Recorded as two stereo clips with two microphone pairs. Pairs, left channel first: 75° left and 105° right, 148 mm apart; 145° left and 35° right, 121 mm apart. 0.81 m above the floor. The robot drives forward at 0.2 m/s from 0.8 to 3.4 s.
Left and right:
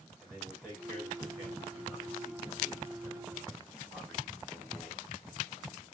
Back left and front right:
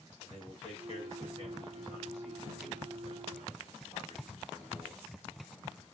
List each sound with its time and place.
0.2 s a man speaking: 170° left, 3 m; by 5.1 s 175° left, 3.5 m